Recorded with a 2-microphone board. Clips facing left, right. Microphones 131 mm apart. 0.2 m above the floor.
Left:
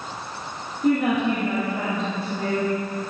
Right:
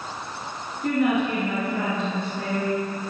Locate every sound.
0.8 s a woman speaking: 15° left (ahead or behind), 2.5 m